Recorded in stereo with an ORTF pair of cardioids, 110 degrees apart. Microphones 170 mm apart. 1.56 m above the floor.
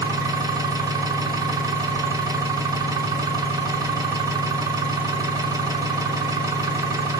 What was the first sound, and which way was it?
An engine running, 20° right.